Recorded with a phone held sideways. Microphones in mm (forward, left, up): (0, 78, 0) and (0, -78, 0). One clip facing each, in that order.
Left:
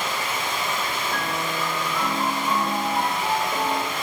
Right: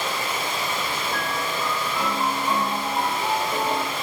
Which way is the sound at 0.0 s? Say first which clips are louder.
Even; 35° right (ahead or behind).